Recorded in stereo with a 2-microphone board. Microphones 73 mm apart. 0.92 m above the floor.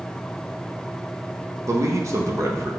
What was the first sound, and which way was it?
A man speaking, 40° right (ahead or behind).